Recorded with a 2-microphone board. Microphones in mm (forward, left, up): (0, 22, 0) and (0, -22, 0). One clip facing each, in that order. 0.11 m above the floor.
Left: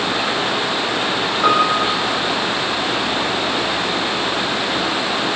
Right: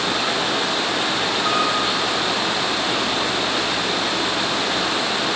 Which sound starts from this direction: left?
A piano, at 1.4 s.